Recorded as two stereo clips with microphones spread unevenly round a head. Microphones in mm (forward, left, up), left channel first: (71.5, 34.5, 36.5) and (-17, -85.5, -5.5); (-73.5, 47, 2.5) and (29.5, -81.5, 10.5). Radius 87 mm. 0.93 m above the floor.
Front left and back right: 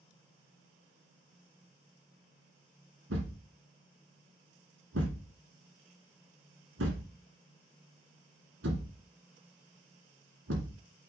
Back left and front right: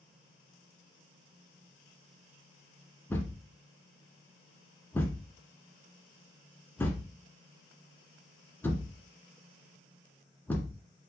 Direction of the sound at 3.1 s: 150° right.